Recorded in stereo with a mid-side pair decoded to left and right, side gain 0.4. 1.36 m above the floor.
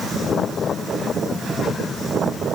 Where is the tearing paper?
I don't hear tearing paper.